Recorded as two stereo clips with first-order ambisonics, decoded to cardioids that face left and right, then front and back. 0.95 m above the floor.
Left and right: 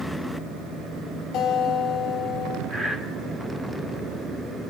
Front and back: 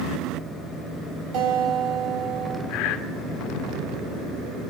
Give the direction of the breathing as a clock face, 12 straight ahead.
1 o'clock.